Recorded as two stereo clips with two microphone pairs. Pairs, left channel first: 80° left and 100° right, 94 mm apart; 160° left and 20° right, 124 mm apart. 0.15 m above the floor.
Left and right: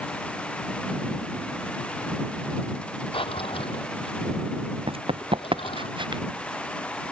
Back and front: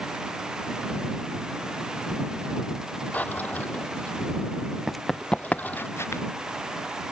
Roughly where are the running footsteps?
Right.